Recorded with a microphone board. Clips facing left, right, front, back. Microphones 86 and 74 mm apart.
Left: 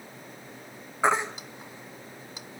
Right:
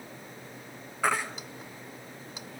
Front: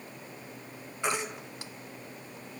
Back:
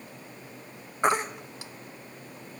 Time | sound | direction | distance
1.0 | a baby crying | 150° left | 1.1 m